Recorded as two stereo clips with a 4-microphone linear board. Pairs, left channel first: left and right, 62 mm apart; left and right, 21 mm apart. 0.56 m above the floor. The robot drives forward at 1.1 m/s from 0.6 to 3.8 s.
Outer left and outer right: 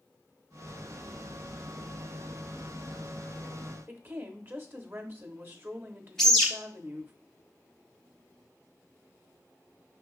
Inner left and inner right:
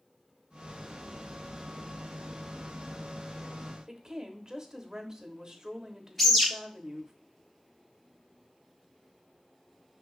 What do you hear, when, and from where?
3.9 s a woman speaking: 35° right (ahead or behind), 0.8 m
6.2 s a bird: 5° left (ahead or behind), 1.3 m